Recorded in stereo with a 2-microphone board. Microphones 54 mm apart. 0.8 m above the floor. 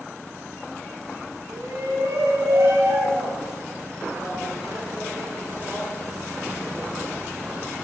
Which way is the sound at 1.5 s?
75° right (ahead or behind).